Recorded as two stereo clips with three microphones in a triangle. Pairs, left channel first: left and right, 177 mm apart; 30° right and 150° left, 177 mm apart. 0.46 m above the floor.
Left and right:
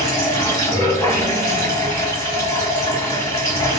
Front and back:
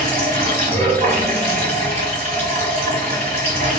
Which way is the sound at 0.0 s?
160° left.